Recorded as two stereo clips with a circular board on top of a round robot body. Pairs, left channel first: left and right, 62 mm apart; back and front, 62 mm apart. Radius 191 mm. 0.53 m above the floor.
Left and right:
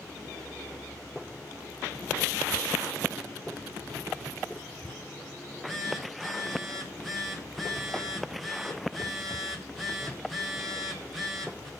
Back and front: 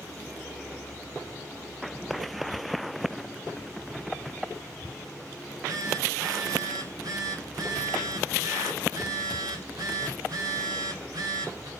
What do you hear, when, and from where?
5.4 s a phone buzzing: straight ahead, 3 m